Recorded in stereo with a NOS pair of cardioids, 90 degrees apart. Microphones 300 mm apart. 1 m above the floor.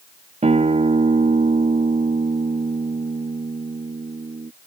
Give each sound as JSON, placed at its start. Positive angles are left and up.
{"t": 0.4, "sound": "a guitar", "azimuth_deg": -25}